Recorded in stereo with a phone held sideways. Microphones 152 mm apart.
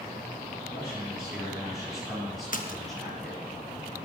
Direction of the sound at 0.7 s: 10° right (ahead or behind).